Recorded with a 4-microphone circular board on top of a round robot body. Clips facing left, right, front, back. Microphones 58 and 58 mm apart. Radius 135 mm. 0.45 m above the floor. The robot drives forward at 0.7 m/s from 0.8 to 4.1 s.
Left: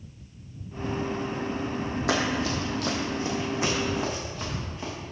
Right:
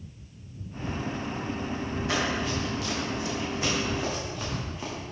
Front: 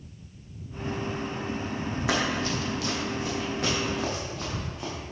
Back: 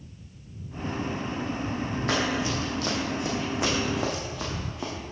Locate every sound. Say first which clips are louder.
2.1 s running footsteps: left 2 dB, even; 85° left, 1.3 m; by 4.9 s straight behind, 2.5 m